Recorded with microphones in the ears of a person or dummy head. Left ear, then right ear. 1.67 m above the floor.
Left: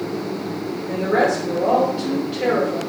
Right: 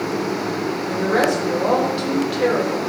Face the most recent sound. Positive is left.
turn(degrees=-45)  # may be behind; listen again after turning